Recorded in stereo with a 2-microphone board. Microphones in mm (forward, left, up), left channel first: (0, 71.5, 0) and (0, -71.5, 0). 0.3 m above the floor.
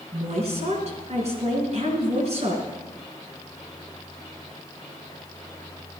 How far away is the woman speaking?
About 4 m.